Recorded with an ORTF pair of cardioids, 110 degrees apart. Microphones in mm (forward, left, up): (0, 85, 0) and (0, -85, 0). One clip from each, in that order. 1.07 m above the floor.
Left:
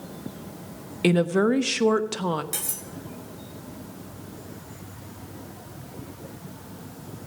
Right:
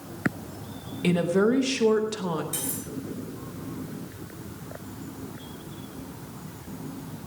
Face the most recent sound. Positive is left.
turn(degrees=60)